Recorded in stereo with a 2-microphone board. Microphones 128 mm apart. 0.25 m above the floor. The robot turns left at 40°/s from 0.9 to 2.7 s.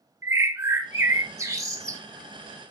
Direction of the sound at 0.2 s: 20° right (ahead or behind).